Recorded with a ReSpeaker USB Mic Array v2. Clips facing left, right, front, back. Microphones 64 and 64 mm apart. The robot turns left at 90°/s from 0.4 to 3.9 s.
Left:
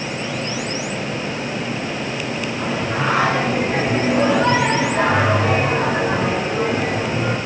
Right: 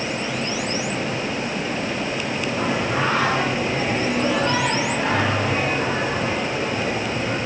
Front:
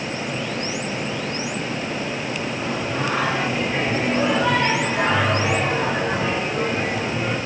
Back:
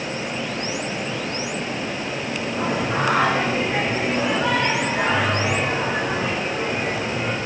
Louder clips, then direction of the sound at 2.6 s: Right 1 dB, back 5 dB; 145° right.